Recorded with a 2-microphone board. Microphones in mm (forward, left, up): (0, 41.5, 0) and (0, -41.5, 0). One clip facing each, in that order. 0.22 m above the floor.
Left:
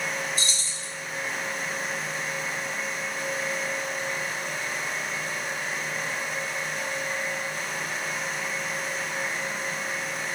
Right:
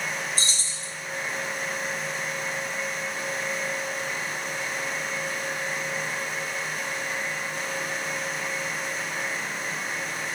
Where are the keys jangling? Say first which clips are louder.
Even; 30° right (ahead or behind), 1.5 m.